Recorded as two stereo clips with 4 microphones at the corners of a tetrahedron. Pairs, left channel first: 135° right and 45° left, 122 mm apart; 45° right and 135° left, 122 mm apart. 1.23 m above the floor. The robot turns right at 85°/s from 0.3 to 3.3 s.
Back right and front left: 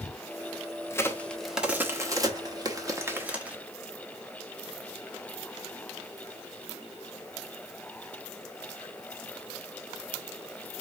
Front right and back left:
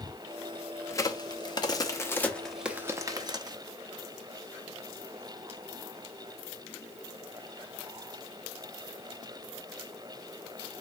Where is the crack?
90° right, 0.7 m; by 3.6 s 110° left, 0.7 m.